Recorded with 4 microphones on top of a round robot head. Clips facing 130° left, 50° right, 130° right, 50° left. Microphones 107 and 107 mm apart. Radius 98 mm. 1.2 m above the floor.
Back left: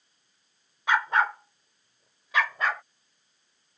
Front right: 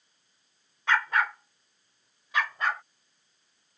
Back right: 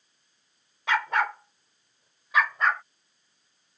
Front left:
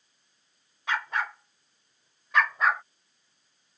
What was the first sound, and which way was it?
A dog barking, 150° right.